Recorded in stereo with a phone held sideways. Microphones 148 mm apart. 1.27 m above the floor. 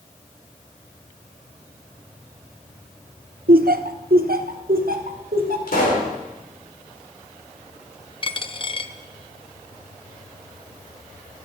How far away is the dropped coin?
About 0.7 m.